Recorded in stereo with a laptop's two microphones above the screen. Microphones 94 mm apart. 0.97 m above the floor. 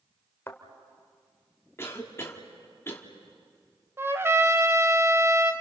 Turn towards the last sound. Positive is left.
turn(degrees=-25)  # may be behind; listen again after turning